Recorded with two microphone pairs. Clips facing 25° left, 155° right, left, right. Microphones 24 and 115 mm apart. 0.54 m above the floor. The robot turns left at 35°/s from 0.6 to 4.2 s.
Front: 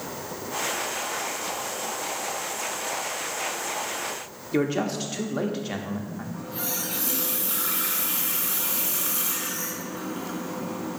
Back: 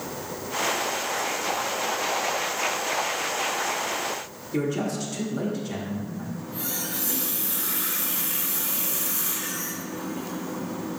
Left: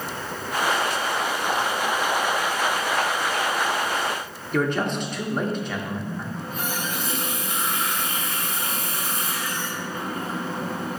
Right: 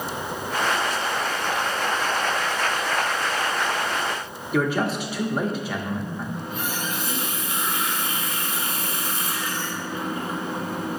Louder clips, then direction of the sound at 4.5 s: Front 2 dB, right 1 dB; 10° right.